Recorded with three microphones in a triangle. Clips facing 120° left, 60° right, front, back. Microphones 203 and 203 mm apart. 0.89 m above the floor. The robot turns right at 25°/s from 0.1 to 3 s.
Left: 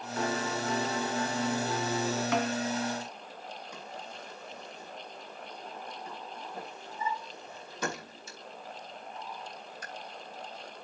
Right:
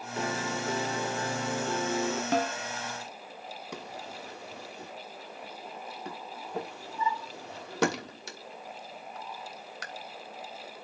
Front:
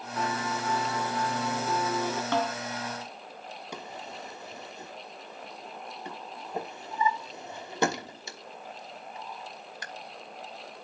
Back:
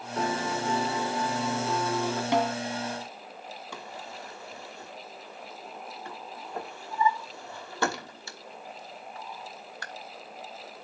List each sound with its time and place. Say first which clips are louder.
0.2 s a piano: left 1 dB, back 3 dB; 125° right, 2 m; by 2.2 s 75° right, 2 m
2.3 s a snare drum: right 2 dB, back 4 dB; 110° right, 1.4 m; by 2.5 s 105° right, 1.4 m
3.7 s a drawer: right 3 dB, front 3 dB; 70° right, 1.2 m